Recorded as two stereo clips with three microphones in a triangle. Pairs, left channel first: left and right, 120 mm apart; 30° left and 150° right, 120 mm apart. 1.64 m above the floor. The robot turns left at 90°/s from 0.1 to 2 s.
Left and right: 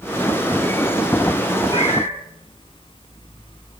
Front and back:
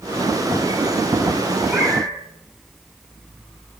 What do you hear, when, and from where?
1.7 s a cat meowing: 140° left, 6.5 m; by 2.2 s 110° left, 6.5 m